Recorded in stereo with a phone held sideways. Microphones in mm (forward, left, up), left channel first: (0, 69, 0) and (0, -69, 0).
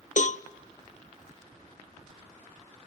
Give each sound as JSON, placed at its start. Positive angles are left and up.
{"t": 0.2, "sound": "a cowbell", "side_deg": 65, "distance_m": 0.6}